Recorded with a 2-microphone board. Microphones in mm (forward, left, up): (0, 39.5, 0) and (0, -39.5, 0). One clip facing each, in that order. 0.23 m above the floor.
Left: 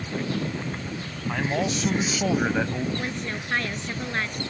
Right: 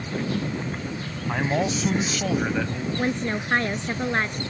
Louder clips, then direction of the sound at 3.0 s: Right 6 dB; 30° right (ahead or behind).